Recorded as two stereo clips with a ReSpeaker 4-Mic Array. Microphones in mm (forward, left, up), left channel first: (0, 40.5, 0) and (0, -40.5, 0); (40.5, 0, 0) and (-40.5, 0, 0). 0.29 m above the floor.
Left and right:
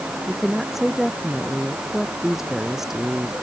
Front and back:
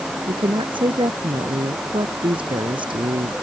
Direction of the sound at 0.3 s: 175° right.